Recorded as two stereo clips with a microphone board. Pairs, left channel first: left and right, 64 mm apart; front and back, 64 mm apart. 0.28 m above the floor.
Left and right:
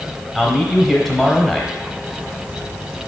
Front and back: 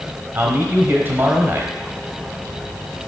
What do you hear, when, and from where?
0.3 s a man speaking: straight behind, 1.1 m